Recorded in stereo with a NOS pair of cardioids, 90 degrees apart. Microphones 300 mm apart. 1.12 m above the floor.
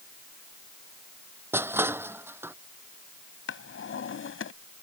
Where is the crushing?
10° right.